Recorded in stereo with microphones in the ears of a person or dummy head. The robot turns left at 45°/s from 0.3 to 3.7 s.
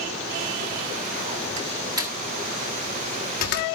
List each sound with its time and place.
1.6 s a door slam: 35° right (ahead or behind), 1.7 m; by 3.7 s 55° left (ahead or behind), 1.7 m